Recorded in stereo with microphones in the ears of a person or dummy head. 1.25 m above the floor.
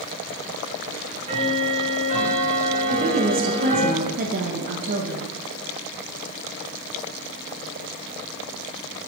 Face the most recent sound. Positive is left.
turn(degrees=-50)  # may be behind; listen again after turning